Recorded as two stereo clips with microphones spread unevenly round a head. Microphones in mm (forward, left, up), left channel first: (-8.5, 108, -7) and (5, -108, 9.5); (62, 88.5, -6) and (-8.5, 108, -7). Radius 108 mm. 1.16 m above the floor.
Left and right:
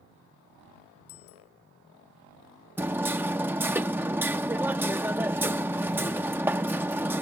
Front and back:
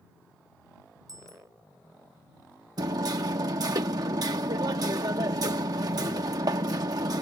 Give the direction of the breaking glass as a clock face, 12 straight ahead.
I don't hear breaking glass.